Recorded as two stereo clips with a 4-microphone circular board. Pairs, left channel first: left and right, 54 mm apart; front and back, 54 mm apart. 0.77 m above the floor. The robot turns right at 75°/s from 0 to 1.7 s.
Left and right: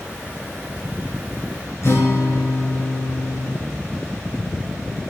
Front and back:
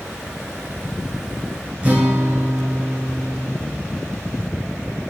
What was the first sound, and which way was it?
A guitar, 125° left.